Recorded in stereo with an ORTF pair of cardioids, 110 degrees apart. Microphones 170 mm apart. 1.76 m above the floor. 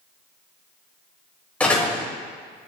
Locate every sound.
1.6 s a door slam: 10° left, 2.5 m